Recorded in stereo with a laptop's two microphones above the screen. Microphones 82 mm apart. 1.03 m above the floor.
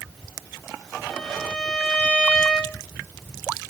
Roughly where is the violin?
Centre.